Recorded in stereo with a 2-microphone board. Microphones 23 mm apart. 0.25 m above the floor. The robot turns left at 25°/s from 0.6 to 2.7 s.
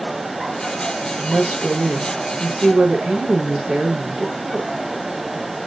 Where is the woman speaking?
80° right, 3.5 m; by 4.7 s 115° right, 3.5 m.